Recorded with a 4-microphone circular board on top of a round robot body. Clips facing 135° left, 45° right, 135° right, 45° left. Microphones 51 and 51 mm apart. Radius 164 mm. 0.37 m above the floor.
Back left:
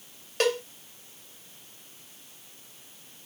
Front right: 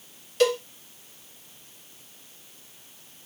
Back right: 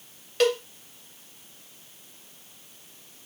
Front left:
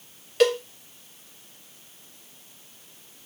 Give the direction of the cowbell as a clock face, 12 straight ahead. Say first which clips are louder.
Front right 4 dB, front left 2 dB; 8 o'clock.